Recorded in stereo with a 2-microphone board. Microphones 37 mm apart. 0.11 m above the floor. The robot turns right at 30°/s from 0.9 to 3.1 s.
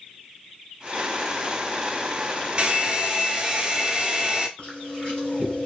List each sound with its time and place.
2.6 s a hair dryer: 35° right (ahead or behind), 0.6 m; by 4.5 s 25° right (ahead or behind), 0.6 m
4.6 s chewing: 30° left (ahead or behind), 1.8 m